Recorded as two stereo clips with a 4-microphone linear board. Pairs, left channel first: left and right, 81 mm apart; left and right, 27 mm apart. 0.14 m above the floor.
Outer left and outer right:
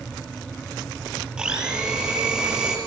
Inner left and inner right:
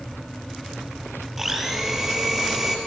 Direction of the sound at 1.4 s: 10° right (ahead or behind).